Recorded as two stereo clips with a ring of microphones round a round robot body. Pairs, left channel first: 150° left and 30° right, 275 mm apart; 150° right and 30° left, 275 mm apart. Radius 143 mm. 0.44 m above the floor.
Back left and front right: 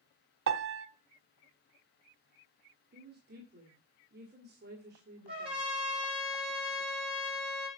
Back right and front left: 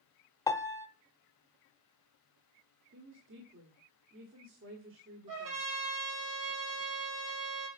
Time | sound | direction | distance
0.5 | a piano | 70° right | 0.6 m
2.9 | a woman speaking | 10° left | 1.8 m
5.3 | a trumpet | 40° left | 5.5 m